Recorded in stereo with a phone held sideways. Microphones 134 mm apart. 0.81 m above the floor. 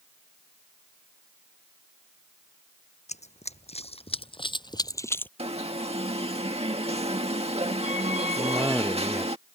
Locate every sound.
3.1 s running footsteps: 60° left (ahead or behind); by 5.3 s 15° left (ahead or behind)
5.4 s an alarm: 50° right (ahead or behind)
8.4 s a cough: 10° right (ahead or behind)